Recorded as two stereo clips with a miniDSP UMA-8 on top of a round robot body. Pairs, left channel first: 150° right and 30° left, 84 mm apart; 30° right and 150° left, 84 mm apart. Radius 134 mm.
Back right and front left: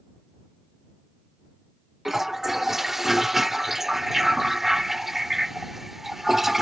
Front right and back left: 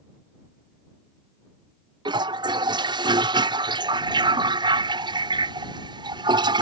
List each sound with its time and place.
2.0 s a toilet flushing: 115° left